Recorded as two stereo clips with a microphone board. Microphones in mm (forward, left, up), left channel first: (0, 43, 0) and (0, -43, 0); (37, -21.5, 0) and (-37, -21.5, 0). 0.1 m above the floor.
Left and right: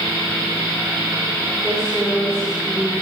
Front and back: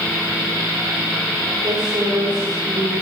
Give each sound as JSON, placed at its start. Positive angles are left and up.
{"t": 1.6, "sound": "a woman speaking", "azimuth_deg": -175, "distance_m": 7.0}